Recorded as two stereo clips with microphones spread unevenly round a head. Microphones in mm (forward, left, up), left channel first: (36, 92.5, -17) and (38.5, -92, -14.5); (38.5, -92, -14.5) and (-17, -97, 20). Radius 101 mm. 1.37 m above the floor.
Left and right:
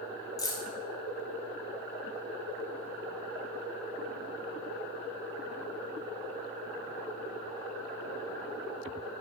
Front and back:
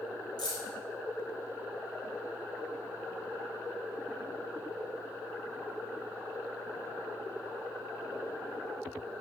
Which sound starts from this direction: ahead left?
Keys jangling, at 0.4 s.